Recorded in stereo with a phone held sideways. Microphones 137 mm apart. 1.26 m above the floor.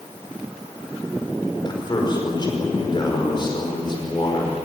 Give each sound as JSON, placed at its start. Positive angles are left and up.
{"t": 1.6, "sound": "a man speaking", "side_deg": 35, "distance_m": 5.0}